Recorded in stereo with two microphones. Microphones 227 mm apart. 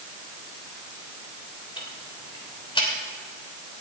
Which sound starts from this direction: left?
Ticking, at 1.8 s.